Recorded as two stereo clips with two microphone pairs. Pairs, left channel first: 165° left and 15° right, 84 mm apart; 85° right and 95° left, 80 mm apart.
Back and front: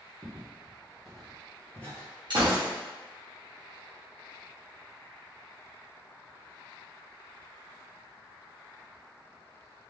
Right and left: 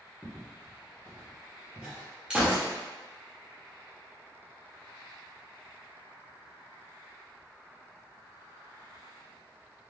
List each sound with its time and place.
0.2 s footsteps: 20° left, 1.7 m; by 2.1 s 160° left, 1.7 m
2.3 s a gunshot: 20° left, 1.0 m